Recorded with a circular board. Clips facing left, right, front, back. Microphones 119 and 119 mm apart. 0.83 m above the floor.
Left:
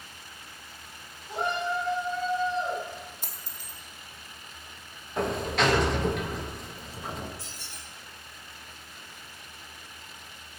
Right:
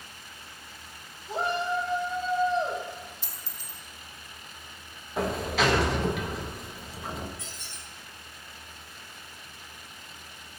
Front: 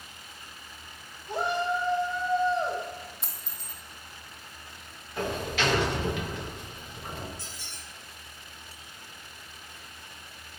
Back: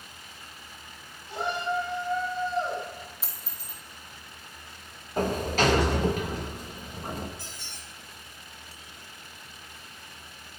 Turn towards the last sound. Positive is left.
turn(degrees=145)